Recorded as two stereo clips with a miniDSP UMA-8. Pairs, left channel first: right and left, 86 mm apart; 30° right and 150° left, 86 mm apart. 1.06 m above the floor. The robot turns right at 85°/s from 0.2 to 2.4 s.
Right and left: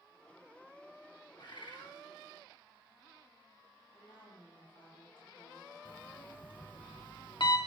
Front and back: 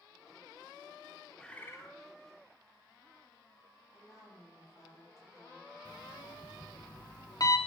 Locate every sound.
1.4 s a bird: 115° right, 1.8 m; by 1.9 s 65° right, 1.8 m
3.9 s a woman speaking: 80° right, 6.5 m
5.8 s an alarm clock: 70° right, 1.4 m